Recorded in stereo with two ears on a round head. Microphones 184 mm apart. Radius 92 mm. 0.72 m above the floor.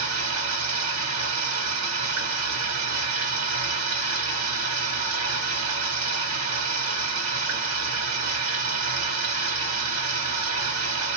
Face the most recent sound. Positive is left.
turn(degrees=-80)